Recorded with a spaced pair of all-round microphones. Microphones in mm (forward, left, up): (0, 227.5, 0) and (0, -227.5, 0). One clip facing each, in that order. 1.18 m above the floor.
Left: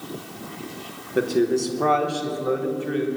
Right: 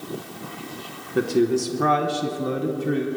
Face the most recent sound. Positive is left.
turn(degrees=-60)  # may be behind; listen again after turning